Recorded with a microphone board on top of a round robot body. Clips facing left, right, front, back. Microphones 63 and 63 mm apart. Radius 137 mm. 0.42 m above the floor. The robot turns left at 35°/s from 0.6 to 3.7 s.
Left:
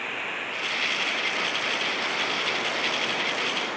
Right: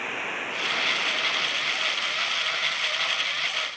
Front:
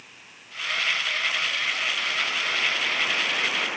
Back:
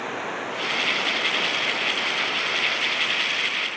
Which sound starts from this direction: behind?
Running water, at 0.0 s.